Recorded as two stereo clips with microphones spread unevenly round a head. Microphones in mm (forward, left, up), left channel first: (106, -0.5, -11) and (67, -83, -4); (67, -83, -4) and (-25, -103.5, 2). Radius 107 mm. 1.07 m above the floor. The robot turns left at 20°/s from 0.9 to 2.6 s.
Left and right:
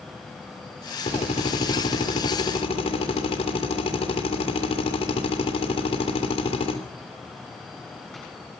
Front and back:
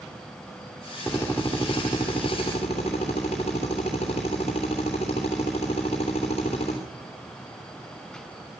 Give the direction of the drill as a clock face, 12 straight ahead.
9 o'clock.